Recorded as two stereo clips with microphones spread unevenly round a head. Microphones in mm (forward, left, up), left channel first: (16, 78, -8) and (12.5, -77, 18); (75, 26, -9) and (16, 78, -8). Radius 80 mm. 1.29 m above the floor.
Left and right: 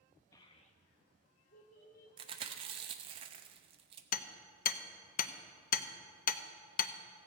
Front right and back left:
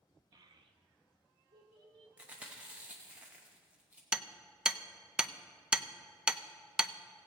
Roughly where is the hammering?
Ahead left.